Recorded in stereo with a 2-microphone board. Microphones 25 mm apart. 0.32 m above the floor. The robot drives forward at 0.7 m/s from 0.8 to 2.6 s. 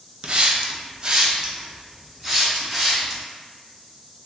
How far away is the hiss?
About 0.5 m.